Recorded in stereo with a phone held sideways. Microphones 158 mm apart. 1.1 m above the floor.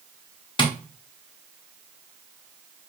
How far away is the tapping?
About 0.7 m.